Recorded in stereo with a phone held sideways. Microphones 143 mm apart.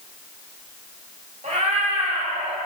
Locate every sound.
1.4 s a cat meowing: 60° right (ahead or behind), 2.5 m; by 2.6 s 45° right (ahead or behind), 2 m